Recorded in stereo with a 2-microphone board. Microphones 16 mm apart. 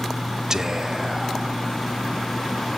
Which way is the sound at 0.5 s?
25° right (ahead or behind).